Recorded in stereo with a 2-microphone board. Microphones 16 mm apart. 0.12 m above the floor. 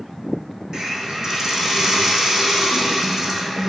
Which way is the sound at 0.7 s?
65° right (ahead or behind).